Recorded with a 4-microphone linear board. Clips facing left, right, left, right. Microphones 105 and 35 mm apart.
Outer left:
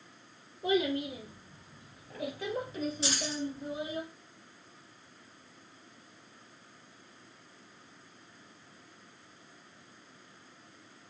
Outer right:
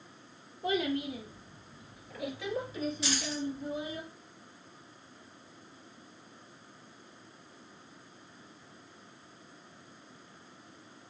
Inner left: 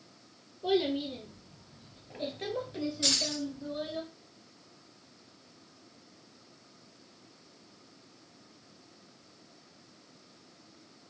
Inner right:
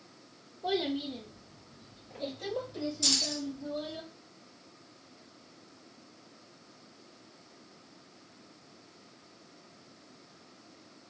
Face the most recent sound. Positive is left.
turn(degrees=30)  # may be behind; listen again after turning